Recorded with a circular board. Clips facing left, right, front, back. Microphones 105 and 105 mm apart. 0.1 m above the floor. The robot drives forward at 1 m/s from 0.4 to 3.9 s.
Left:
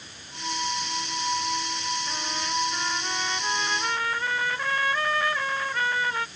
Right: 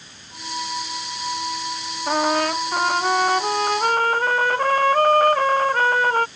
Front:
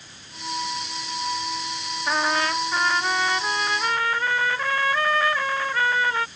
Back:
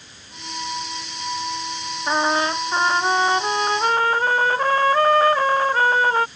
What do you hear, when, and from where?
2.1 s a trumpet: 110° right; by 6.3 s 130° right